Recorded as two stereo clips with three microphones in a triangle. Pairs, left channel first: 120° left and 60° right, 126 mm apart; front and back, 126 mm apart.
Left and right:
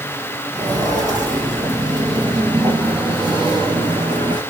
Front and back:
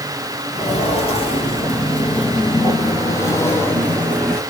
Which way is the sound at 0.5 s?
Straight ahead.